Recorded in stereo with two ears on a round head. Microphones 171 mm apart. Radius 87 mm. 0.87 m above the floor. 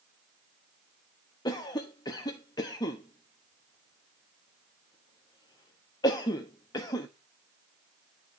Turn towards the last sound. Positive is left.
turn(degrees=20)  # may be behind; listen again after turning